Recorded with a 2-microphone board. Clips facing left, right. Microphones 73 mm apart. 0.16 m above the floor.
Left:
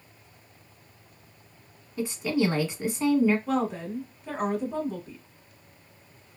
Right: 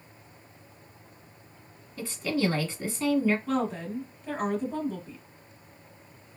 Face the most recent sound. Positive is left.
turn(degrees=15)  # may be behind; listen again after turning